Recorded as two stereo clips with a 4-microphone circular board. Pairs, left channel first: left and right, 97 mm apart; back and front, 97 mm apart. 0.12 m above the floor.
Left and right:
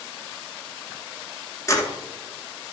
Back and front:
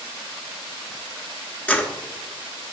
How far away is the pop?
No pop in this recording.